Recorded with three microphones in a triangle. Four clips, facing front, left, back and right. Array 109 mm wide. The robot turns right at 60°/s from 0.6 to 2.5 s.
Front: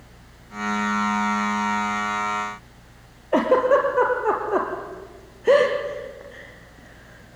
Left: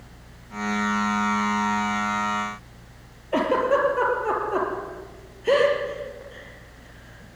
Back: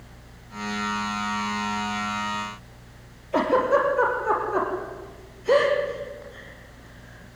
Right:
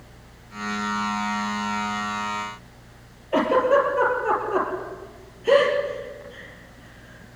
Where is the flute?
I don't hear a flute.